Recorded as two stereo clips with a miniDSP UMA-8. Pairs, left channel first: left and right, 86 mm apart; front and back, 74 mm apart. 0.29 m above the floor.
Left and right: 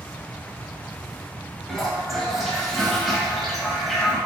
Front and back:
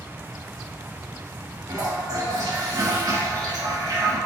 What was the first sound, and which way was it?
A toilet flushing, straight behind.